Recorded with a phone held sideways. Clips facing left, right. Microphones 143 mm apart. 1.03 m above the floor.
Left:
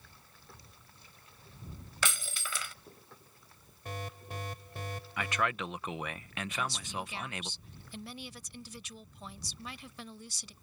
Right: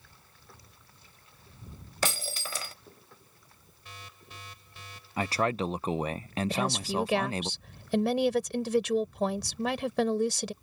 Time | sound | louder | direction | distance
2.0 | breaking glass | right 5 dB | 40° right (ahead or behind) | ?
3.9 | an alarm | left 9 dB | 50° left (ahead or behind) | ?
5.2 | a man speaking | right 6 dB | 35° right (ahead or behind) | ?
6.5 | a woman speaking | right 7 dB | 85° right | ?